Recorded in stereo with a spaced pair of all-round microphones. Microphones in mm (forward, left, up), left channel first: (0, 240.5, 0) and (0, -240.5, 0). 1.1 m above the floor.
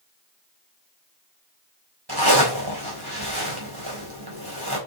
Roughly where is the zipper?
Right.